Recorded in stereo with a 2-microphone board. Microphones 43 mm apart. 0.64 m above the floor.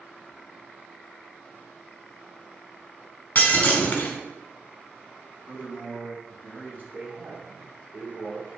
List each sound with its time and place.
3.4 s breaking glass: 40° left (ahead or behind), 2 m
5.5 s a man speaking: 45° right (ahead or behind), 3.5 m
6.9 s a man speaking: 55° right (ahead or behind), 1.3 m